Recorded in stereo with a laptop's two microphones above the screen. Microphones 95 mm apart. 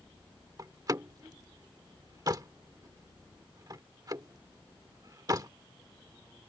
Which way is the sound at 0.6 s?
40° right (ahead or behind).